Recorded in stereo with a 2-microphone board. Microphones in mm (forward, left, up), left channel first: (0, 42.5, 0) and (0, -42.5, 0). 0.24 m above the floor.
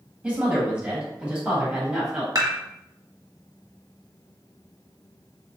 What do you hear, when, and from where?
0.2 s a woman speaking: 15° right (ahead or behind), 1.6 m; by 2.2 s 10° right (ahead or behind), 1.8 m
2.4 s dishes clattering: 45° right (ahead or behind), 1.0 m